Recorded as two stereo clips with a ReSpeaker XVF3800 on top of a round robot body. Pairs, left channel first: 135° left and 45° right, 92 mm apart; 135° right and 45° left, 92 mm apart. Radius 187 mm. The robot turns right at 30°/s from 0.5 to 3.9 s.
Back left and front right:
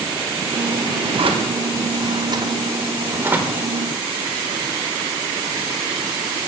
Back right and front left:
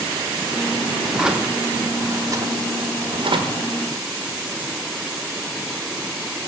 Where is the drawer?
45° right, 1.3 m; by 3.7 s 35° left, 1.3 m.